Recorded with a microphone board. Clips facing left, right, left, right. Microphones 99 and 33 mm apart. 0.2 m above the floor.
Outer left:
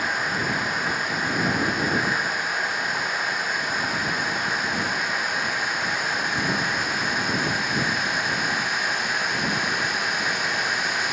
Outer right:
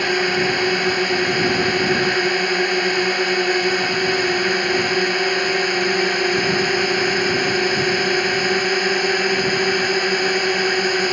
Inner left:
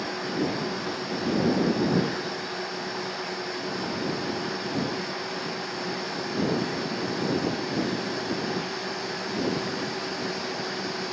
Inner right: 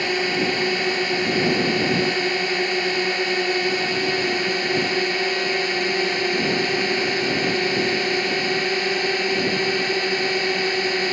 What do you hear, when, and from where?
0.0 s a drone: 70° right (ahead or behind); by 11.1 s 60° right (ahead or behind)